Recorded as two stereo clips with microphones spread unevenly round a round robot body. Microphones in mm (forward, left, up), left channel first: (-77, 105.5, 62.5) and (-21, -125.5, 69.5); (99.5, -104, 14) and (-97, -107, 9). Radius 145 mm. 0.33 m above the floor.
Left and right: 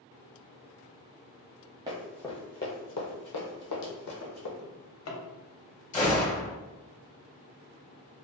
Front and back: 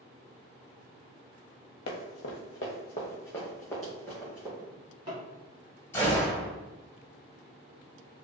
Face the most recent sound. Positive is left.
turn(degrees=75)